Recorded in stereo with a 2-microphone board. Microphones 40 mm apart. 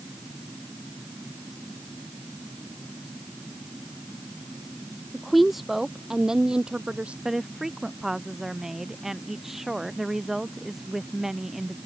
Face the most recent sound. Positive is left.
turn(degrees=-10)  # may be behind; listen again after turning